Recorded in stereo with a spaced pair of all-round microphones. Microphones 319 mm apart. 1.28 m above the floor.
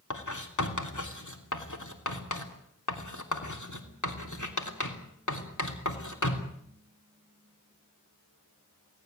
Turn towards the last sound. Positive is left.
turn(degrees=65)  # may be behind; listen again after turning